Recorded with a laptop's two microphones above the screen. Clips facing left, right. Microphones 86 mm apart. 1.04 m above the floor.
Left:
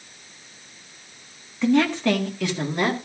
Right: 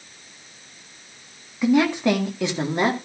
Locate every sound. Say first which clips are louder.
1.6 s a woman speaking: right 1 dB; 10° right (ahead or behind), 1.5 m; by 3.0 s 25° right (ahead or behind), 2.0 m